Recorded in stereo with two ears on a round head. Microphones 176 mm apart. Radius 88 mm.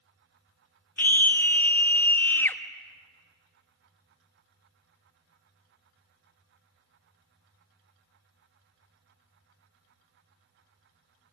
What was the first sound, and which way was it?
A scream, 10° left (ahead or behind).